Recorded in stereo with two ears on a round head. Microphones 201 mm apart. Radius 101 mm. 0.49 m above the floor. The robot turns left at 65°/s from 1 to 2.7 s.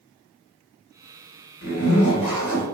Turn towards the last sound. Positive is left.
turn(degrees=0)